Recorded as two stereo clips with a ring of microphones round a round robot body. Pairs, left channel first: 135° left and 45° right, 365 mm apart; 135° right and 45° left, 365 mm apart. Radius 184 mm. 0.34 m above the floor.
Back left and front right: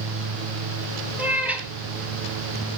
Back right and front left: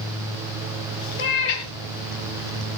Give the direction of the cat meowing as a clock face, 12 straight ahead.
4 o'clock.